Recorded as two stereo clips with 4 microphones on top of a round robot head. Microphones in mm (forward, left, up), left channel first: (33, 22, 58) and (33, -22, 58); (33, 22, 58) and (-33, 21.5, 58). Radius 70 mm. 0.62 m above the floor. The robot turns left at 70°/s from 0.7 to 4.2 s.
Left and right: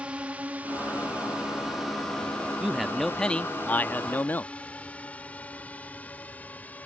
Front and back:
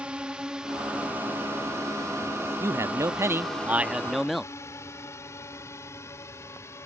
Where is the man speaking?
145° right; by 4.5 s 90° left.